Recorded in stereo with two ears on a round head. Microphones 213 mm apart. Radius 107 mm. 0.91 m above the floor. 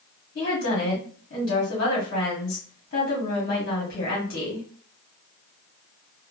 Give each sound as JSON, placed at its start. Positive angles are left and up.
{"t": 0.3, "sound": "a woman speaking", "side_deg": 40, "distance_m": 1.4}